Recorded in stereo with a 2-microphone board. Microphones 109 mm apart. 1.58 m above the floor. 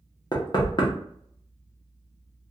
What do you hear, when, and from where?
0.3 s knocking: 45° left (ahead or behind), 0.7 m